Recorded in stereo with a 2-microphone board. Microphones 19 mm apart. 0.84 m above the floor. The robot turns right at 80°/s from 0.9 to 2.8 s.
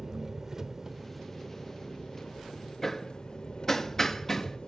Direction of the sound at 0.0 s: 30° right.